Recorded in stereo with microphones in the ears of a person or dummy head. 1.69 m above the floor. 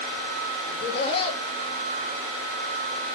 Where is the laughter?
35° left (ahead or behind), 4 m.